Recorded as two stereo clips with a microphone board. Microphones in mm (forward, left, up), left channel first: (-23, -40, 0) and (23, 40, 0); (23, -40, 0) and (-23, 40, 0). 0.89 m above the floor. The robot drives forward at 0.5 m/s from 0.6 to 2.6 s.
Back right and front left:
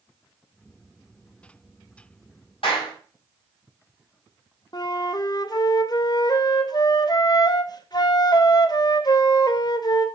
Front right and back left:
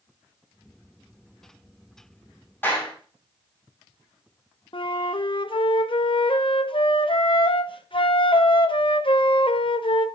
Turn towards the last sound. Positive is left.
turn(degrees=-80)